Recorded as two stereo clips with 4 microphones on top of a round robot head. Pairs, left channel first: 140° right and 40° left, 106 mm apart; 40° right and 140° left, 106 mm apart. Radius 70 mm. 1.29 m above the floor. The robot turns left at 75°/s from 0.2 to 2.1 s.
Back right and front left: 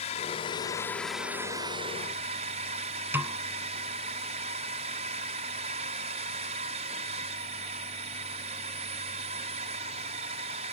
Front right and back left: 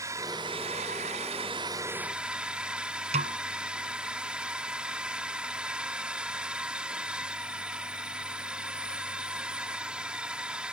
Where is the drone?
160° right; by 10.7 s 55° left.